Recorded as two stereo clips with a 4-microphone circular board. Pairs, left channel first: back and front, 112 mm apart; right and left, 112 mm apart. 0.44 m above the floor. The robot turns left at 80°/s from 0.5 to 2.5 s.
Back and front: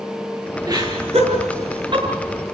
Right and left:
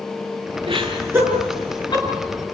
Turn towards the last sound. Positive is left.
turn(degrees=-90)